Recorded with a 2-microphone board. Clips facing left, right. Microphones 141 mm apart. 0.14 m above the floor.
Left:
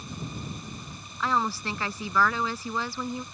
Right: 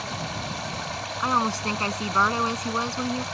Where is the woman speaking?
20° right (ahead or behind).